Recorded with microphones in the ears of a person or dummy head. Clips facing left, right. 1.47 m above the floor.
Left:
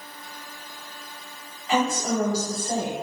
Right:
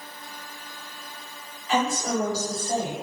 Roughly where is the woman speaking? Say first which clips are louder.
Left 1 dB; left.